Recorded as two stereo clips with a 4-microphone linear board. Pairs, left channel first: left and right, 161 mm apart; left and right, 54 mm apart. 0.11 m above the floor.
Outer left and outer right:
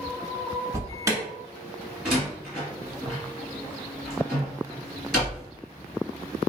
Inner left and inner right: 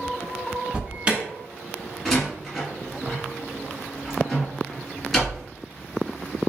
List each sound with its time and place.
0.7 s an alarm: 20° right (ahead or behind), 0.9 m
2.0 s a door slam: 5° left (ahead or behind), 1.8 m